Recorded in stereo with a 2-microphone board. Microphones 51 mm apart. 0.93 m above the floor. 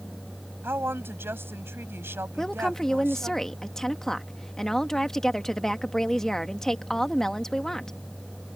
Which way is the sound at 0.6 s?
55° right (ahead or behind).